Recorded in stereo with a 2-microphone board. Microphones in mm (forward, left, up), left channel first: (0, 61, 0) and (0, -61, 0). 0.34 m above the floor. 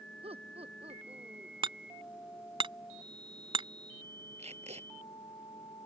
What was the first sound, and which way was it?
Laughter, 50° right (ahead or behind).